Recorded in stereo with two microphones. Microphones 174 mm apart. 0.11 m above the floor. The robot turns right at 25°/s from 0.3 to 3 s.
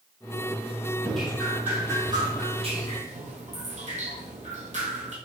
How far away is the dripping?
About 1.6 m.